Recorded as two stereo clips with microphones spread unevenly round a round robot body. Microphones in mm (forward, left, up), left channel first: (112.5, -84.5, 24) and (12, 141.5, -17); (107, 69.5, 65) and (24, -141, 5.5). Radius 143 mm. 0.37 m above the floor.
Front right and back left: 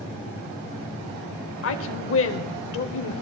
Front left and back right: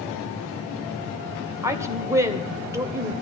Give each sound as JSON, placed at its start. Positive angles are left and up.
{"t": 1.6, "sound": "a woman speaking", "azimuth_deg": -55, "distance_m": 1.6}